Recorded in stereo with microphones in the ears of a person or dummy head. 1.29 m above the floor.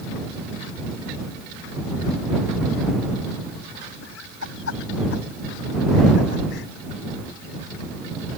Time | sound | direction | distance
4.0 | laughter | 70° left (ahead or behind) | ?